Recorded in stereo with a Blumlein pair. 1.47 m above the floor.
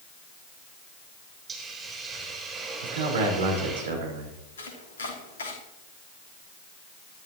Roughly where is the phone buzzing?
No phone buzzing in this recording.